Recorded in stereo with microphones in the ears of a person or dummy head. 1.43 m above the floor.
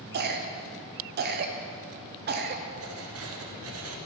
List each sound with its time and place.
0.1 s a cough: 45° right (ahead or behind), 0.6 m
2.8 s writing: 65° right (ahead or behind), 0.9 m